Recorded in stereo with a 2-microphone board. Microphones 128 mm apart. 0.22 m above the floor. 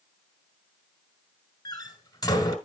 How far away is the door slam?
About 1.8 m.